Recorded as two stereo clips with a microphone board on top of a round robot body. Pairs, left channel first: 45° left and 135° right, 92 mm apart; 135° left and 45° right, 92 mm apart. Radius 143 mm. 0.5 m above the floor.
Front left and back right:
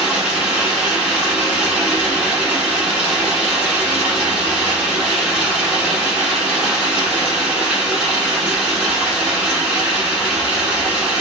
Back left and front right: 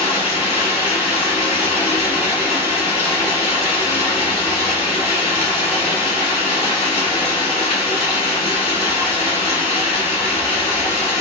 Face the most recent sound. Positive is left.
turn(degrees=145)